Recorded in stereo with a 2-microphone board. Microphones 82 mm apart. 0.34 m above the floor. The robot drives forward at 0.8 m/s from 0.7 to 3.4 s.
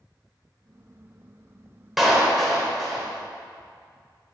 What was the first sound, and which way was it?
A clap, centre (ahead or behind).